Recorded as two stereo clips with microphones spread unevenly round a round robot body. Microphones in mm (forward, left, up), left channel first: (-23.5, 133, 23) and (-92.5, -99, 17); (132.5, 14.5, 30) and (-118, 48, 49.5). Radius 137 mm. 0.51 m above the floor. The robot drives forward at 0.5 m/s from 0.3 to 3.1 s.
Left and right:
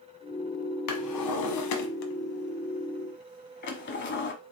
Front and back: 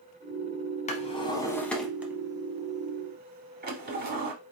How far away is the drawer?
About 1.1 m.